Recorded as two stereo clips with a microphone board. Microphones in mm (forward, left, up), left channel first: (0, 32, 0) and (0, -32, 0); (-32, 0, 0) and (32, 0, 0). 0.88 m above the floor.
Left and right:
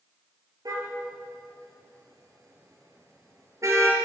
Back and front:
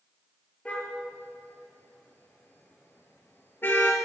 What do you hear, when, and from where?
0.7 s a car horn: 110° right, 7 m; by 4.0 s 125° right, 6 m